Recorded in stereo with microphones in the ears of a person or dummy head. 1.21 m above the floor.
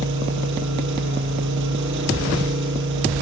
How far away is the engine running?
About 9 m.